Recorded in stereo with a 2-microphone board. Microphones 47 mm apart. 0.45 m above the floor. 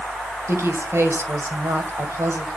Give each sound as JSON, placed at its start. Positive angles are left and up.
{"t": 0.5, "sound": "a woman speaking", "side_deg": -65, "distance_m": 2.0}